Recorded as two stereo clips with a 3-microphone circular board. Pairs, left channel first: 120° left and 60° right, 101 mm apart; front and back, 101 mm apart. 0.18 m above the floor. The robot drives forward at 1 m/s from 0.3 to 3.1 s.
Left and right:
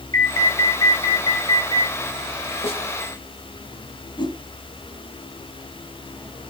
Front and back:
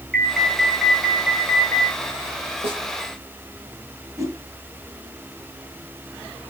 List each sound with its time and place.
0.1 s an alarm: 85° left, 2.5 m; by 1.9 s 135° left, 3 m
2.6 s a snare drum: 150° left, 7.5 m
4.2 s a whoosh: 135° left, 1.7 m